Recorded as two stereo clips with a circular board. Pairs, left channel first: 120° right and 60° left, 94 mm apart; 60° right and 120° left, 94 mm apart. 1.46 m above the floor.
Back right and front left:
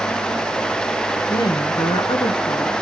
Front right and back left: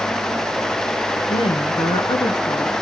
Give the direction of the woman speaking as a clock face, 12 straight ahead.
2 o'clock.